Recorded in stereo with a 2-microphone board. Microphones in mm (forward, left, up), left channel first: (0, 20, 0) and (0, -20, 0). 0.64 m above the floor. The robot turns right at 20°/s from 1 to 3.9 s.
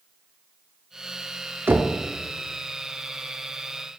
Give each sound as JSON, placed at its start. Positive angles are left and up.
{"t": 1.7, "sound": "knocking", "side_deg": -70, "distance_m": 0.7}